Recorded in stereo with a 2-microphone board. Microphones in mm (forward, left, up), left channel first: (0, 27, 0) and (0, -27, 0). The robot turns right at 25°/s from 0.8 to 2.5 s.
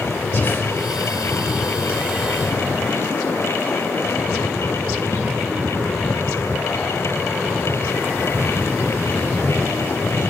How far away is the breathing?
About 0.8 m.